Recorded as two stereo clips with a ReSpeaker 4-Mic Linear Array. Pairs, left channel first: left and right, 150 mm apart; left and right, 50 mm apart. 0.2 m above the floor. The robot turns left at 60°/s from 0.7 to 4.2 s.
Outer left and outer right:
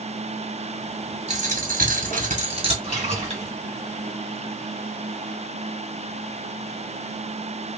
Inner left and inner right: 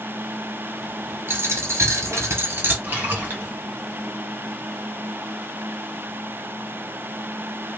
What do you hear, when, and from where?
1.3 s a dropped coin: 50° right, 1.4 m; by 2.7 s 140° right, 1.4 m
2.8 s a splash: 70° right, 2 m; by 3.5 s 110° right, 2 m